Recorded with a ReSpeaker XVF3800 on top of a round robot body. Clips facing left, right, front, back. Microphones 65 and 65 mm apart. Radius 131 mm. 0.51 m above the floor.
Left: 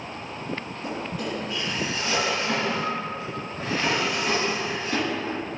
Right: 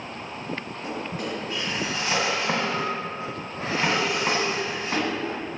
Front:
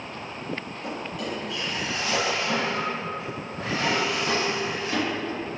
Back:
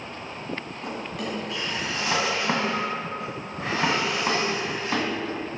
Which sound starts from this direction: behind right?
A drawer, at 0.8 s.